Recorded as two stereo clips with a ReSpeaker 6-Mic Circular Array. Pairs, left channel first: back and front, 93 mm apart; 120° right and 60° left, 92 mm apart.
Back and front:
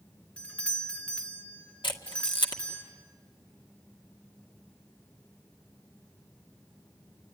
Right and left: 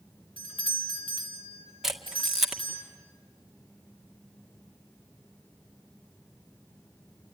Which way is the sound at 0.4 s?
105° right.